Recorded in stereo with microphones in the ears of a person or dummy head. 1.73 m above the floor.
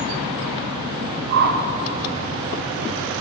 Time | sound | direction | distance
1.3 | a whoosh | 55° right (ahead or behind) | 1.0 m